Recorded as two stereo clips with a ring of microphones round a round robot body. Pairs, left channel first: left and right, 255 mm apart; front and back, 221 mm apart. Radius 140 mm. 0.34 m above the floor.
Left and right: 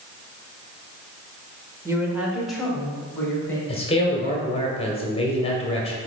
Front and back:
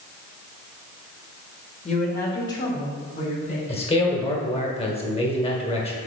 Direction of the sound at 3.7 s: 40° left.